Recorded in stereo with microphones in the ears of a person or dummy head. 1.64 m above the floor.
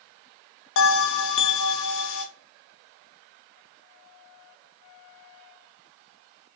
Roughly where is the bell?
Left.